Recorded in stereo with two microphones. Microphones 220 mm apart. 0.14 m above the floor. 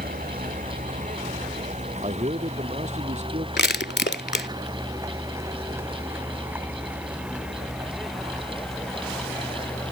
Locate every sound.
0.0 s a vehicle: 40° right (ahead or behind); by 9.9 s 5° left (ahead or behind)
2.0 s a man speaking: 30° right (ahead or behind)
3.6 s crushing: 50° left (ahead or behind)